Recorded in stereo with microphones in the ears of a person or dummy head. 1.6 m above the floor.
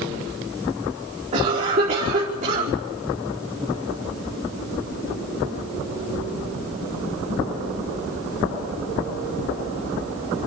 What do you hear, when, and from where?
1.3 s a cough: 45° right (ahead or behind), 5 m